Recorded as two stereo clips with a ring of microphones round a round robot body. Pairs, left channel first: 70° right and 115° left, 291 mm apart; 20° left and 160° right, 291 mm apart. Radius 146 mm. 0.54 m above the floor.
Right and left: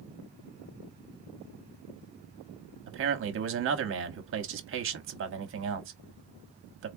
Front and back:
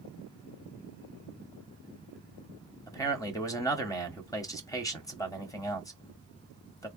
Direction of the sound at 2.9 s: 95° left.